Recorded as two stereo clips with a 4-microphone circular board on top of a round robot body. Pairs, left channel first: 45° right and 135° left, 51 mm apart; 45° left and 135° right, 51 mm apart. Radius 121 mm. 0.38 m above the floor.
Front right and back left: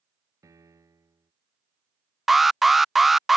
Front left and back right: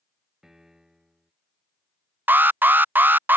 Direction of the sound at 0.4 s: 145° left.